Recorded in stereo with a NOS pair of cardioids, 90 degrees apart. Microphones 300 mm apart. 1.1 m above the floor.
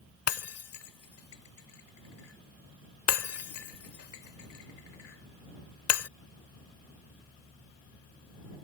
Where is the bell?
I don't hear a bell.